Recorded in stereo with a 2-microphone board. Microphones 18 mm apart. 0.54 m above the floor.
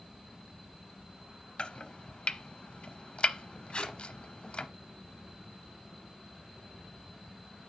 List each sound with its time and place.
1.6 s chopping: 65° left (ahead or behind), 0.6 m
3.7 s tape being pulled: 65° left (ahead or behind), 1.3 m